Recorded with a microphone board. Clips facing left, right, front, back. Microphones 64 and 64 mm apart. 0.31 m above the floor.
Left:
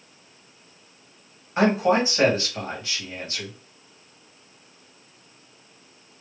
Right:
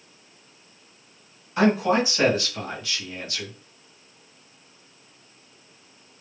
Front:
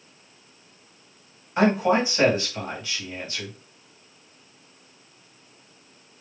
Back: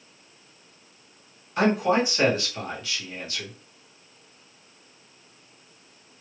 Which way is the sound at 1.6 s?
45° left.